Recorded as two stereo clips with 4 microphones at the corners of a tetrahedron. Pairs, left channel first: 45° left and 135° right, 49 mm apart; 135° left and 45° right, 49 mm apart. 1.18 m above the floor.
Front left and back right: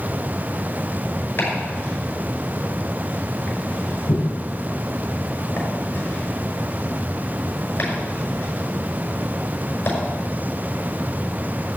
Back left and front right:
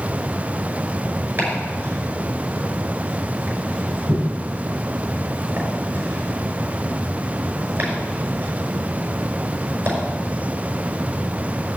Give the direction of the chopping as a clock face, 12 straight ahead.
12 o'clock.